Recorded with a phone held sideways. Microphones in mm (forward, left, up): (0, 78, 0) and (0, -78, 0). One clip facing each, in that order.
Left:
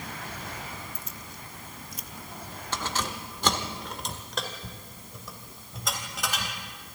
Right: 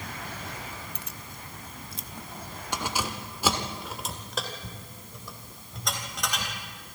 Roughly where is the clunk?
No clunk in this recording.